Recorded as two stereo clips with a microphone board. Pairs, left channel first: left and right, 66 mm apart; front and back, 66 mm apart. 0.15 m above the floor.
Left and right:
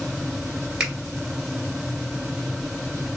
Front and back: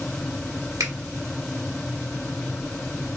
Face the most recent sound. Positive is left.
turn(degrees=-165)